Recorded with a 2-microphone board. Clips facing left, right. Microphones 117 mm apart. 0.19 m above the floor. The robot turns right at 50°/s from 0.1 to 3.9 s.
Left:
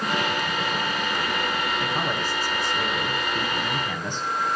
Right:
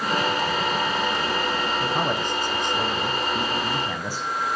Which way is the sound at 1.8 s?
15° right (ahead or behind).